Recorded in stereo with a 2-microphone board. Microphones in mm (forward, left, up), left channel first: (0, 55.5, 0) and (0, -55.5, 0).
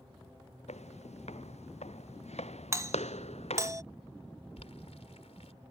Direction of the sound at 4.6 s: 70° left (ahead or behind).